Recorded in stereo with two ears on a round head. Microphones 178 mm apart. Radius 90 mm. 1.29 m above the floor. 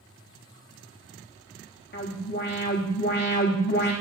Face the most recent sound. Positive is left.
turn(degrees=55)  # may be behind; listen again after turning